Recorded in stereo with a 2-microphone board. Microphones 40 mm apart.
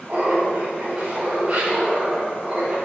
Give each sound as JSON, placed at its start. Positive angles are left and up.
{"t": 0.1, "sound": "laughter", "side_deg": -45, "distance_m": 2.5}